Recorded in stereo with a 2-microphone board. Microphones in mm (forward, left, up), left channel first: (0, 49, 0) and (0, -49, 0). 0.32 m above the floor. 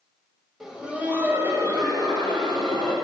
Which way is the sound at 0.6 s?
5° right (ahead or behind).